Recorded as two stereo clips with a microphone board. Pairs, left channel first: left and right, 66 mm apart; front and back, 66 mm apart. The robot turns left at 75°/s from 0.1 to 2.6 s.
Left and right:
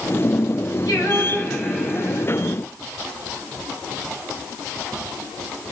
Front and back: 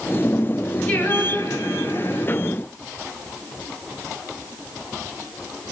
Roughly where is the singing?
Ahead left.